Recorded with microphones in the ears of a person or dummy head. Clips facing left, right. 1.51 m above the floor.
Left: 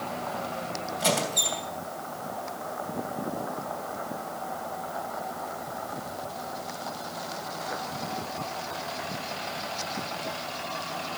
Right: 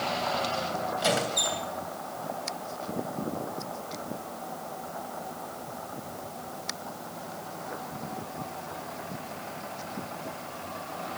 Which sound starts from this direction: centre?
A squeak, at 1.0 s.